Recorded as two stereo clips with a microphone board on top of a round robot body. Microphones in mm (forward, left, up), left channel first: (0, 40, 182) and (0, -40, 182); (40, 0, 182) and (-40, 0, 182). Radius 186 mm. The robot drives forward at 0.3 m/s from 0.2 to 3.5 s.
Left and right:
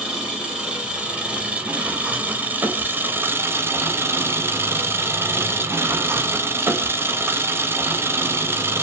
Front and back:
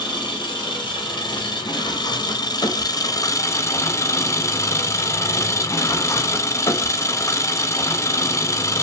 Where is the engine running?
10° right, 1.4 m; by 8.8 s 40° right, 0.6 m.